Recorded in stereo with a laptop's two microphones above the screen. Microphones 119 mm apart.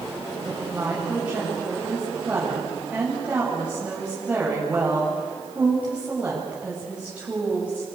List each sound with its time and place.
0.5 s a woman speaking: 10° right (ahead or behind), 7.5 m